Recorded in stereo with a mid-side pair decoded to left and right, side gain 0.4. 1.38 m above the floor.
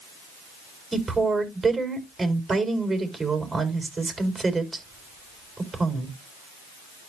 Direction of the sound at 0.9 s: 30° right.